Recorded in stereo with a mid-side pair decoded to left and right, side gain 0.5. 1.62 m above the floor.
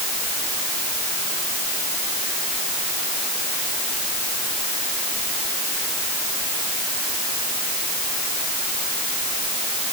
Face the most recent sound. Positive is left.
No sound to turn to.